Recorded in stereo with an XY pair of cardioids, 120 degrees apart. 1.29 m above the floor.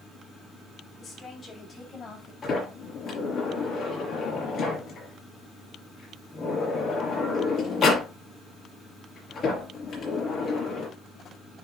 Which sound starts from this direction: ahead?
A woman speaking, at 1.0 s.